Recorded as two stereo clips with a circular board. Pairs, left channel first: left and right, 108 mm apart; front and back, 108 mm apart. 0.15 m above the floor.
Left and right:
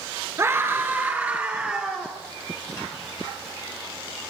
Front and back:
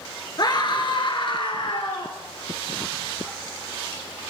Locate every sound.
0.4 s a scream: 35° right, 3 m; by 2.1 s 5° right, 3.5 m